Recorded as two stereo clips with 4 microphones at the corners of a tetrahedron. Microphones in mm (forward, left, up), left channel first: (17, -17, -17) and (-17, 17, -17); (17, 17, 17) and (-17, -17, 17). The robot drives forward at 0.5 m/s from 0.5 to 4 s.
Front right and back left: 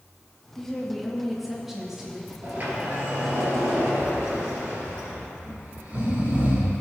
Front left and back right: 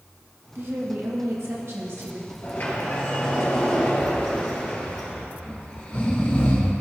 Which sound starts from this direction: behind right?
A woman speaking, at 0.6 s.